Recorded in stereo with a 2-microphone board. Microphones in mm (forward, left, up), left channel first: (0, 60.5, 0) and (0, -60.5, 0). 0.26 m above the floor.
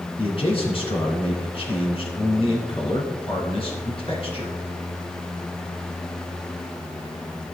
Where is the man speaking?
50° left (ahead or behind), 2.5 m.